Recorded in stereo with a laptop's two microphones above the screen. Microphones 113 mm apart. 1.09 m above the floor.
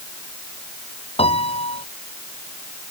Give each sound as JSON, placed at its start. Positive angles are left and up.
{"t": 1.2, "sound": "a piano", "side_deg": 60}